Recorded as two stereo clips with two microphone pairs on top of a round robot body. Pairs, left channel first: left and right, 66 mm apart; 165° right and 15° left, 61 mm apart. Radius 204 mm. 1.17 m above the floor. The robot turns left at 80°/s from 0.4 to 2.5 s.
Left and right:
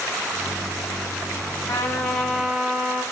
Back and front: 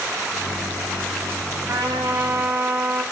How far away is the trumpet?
About 3 m.